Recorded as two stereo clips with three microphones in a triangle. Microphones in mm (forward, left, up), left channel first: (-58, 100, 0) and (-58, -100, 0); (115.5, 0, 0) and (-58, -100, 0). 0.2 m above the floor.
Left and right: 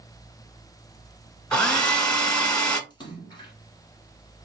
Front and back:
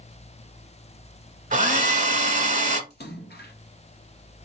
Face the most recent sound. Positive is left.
turn(degrees=30)